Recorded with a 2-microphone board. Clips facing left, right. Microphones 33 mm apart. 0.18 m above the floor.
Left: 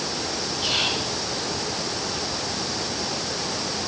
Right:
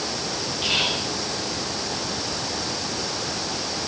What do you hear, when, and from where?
0.6 s whispering: 45° right (ahead or behind), 4 m